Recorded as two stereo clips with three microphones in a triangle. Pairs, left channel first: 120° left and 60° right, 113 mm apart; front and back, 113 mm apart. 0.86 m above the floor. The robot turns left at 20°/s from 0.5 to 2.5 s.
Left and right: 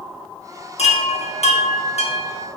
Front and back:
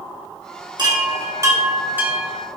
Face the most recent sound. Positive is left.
turn(degrees=95)